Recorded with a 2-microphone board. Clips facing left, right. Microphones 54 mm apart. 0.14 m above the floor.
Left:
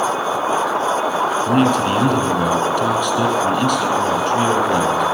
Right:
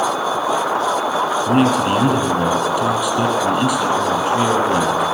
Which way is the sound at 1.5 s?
10° right (ahead or behind).